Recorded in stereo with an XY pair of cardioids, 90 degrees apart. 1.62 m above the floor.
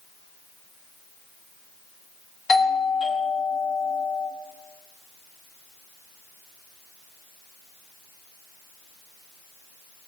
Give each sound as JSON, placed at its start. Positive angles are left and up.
{"t": 2.5, "sound": "a doorbell", "azimuth_deg": 50, "distance_m": 4.0}